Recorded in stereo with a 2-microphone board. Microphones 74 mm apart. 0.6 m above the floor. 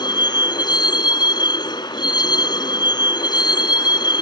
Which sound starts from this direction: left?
A vehicle, at 0.0 s.